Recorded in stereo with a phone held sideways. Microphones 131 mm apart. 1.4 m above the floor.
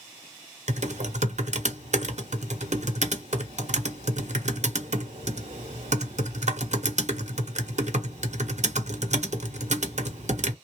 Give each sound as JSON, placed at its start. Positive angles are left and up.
{"t": 0.7, "sound": "typing on a keyboard", "side_deg": -60, "distance_m": 0.9}